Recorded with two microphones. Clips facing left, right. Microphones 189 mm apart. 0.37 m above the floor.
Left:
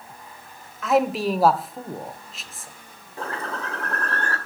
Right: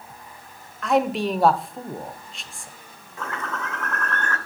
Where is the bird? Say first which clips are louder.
Left 1 dB; 35° left (ahead or behind), 1.5 m.